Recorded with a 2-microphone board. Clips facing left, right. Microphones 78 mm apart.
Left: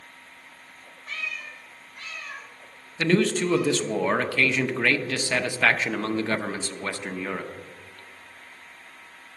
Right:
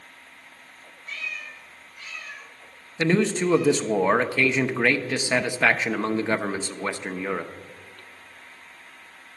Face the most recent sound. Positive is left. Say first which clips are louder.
# even
turn(degrees=-15)  # may be behind; listen again after turning